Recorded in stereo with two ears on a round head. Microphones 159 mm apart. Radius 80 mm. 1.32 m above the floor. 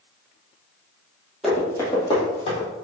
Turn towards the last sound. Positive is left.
turn(degrees=40)  # may be behind; listen again after turning